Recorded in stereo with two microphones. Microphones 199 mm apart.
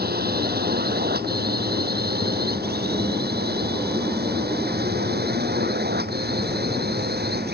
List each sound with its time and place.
0.0 s a drone: 50° right (ahead or behind); by 7.5 s 55° right (ahead or behind)